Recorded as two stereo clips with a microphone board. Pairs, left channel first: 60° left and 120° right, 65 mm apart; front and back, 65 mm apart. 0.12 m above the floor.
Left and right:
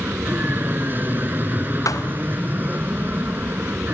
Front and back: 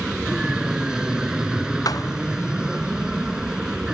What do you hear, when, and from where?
0.0 s an aircraft: 110° right
1.9 s a thud: 25° left